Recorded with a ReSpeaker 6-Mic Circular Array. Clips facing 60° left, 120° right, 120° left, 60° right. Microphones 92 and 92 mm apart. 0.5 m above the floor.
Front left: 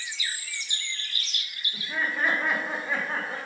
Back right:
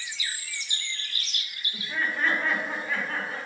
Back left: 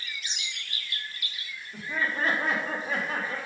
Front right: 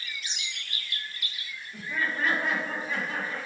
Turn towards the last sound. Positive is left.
turn(degrees=115)